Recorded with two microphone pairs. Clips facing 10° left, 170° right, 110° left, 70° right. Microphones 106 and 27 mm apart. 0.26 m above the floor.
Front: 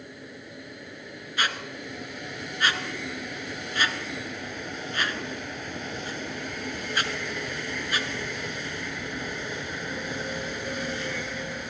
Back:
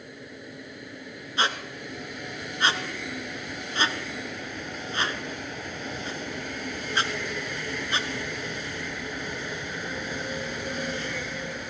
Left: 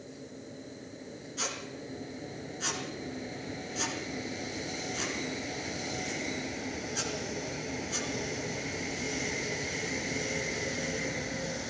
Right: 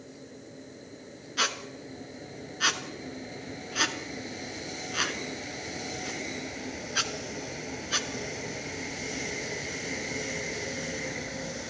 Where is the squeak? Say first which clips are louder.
Back 2 dB, right 8 dB; 105° right, 1.5 m.